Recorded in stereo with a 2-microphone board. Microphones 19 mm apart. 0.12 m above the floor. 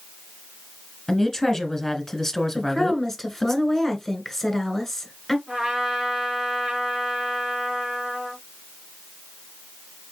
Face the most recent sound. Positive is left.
turn(degrees=-35)  # may be behind; listen again after turning